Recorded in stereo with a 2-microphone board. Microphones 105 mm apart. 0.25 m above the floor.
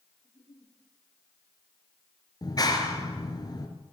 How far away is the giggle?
About 8 m.